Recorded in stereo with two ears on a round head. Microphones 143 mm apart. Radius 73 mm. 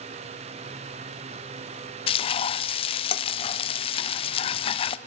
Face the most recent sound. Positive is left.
turn(degrees=35)  # may be behind; listen again after turning